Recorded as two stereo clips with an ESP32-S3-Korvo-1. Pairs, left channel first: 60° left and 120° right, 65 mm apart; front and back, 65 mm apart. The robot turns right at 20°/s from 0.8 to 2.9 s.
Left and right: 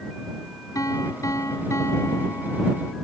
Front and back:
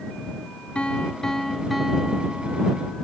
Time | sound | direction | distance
0.8 | a piano | 70° left | ?